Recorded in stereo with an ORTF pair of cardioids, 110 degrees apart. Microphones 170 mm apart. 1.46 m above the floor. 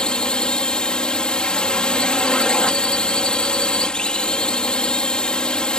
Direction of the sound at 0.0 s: 5° left.